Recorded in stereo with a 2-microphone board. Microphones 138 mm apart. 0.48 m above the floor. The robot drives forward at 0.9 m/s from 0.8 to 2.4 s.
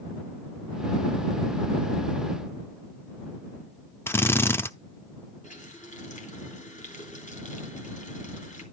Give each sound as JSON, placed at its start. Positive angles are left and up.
{"t": 4.1, "sound": "a drill", "side_deg": 15, "distance_m": 0.6}
{"t": 5.4, "sound": "a running tap", "side_deg": 65, "distance_m": 3.0}